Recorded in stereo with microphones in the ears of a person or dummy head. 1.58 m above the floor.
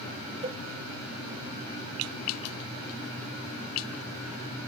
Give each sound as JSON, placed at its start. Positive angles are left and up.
{"t": 0.4, "sound": "a cowbell", "side_deg": -35, "distance_m": 0.9}